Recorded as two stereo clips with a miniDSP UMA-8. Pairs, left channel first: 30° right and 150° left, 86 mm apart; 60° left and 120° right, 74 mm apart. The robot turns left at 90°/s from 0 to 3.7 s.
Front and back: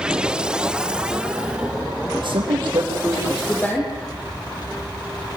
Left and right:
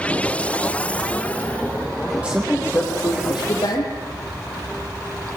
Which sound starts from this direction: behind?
A man speaking, at 2.2 s.